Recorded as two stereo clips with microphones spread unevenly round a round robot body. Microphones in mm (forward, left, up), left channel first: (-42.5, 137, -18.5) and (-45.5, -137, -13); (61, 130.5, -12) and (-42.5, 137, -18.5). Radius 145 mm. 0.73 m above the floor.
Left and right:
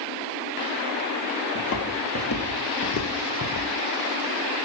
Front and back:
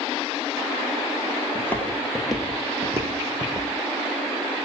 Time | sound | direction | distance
1.6 | footsteps | 60° left | 1.1 m